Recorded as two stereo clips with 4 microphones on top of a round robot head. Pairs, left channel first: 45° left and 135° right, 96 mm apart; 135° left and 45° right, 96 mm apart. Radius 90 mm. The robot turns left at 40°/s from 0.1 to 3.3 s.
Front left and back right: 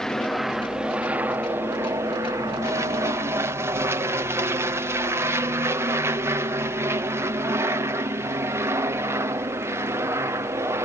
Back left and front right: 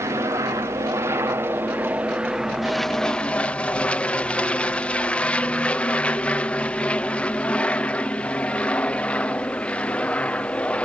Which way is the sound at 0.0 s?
30° right.